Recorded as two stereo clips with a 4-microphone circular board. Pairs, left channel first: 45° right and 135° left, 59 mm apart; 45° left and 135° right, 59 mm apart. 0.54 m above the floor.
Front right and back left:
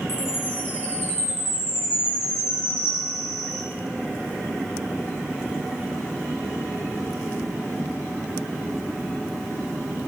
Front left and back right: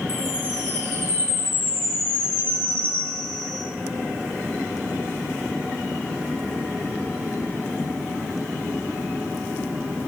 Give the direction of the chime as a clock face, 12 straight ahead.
3 o'clock.